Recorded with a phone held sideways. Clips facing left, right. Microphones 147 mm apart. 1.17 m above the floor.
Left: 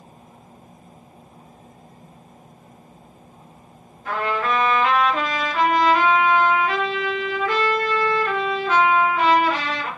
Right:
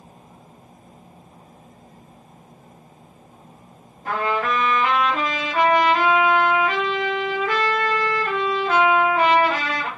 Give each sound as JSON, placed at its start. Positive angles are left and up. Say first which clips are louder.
{"t": 4.0, "sound": "a trumpet", "louder": "even", "side_deg": -45, "distance_m": 1.2}